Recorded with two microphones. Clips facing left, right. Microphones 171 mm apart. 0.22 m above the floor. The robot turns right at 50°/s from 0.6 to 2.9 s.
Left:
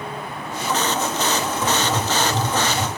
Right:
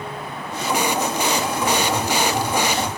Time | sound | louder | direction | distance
1.6 | writing | right 1 dB | 5° left | 1.3 m